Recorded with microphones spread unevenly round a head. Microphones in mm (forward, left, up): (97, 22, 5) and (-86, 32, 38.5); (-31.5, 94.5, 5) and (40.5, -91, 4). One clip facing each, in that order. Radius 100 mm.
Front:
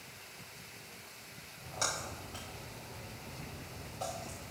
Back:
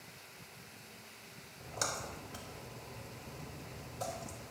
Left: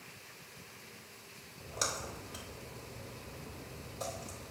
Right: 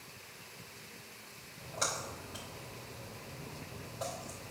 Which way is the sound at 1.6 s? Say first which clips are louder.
Even, right 1 dB; 140° left.